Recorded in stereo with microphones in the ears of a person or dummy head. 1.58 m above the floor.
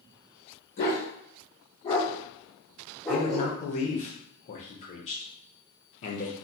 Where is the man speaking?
30° left (ahead or behind), 0.5 m.